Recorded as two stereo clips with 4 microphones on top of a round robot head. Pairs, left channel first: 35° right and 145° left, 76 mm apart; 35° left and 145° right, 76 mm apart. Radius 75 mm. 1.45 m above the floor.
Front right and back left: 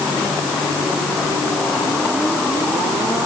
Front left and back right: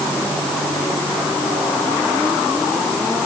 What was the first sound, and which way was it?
Only background noise.